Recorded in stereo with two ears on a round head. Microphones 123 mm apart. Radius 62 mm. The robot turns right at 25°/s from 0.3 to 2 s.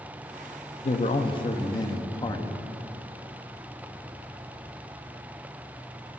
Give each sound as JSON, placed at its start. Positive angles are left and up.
{"t": 0.8, "sound": "a man speaking", "side_deg": 45, "distance_m": 0.8}